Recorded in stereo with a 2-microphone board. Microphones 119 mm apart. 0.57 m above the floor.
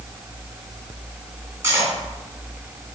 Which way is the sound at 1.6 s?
20° right (ahead or behind).